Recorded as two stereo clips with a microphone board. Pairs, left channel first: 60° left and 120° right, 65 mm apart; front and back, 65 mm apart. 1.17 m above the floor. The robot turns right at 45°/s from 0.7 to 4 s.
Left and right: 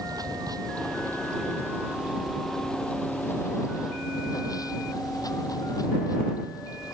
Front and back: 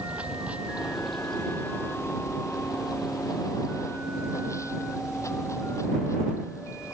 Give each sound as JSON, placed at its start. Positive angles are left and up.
{"t": 0.0, "sound": "running water", "azimuth_deg": -110}